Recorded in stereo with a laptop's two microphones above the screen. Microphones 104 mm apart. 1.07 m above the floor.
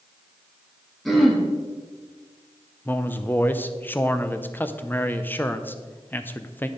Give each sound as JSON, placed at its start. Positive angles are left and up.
{"t": 1.1, "sound": "throat clearing", "side_deg": 0, "distance_m": 1.2}
{"t": 2.9, "sound": "a man speaking", "side_deg": 20, "distance_m": 0.6}